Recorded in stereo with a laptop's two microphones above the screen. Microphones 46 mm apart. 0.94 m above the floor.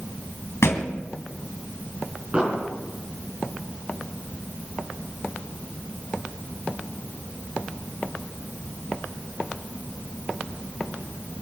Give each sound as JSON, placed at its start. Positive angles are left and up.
{"t": 0.6, "sound": "a thud", "side_deg": 70, "distance_m": 2.5}
{"t": 2.3, "sound": "an explosion", "side_deg": -25, "distance_m": 4.5}